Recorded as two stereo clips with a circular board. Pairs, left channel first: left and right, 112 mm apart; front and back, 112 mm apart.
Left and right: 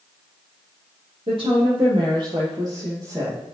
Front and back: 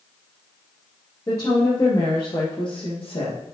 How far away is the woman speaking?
About 4.5 m.